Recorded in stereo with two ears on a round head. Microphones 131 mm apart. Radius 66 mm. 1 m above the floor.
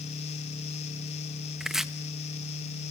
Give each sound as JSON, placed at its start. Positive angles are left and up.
{"t": 1.6, "sound": "chopping", "side_deg": -5, "distance_m": 0.9}